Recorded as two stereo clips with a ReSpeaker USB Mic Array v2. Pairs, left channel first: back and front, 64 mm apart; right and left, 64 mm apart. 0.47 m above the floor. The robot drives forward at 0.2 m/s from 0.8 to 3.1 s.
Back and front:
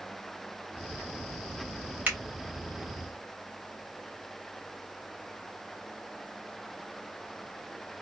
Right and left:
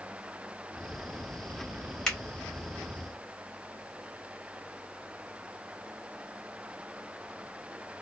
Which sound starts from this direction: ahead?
A finger snap, at 2.1 s.